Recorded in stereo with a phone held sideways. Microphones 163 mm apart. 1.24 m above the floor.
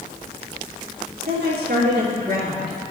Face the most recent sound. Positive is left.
turn(degrees=-75)  # may be behind; listen again after turning